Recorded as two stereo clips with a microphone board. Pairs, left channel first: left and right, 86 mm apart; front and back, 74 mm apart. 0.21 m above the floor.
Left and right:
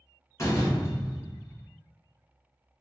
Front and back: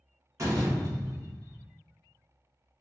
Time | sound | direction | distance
0.4 | a door slam | 140° left | 1.4 m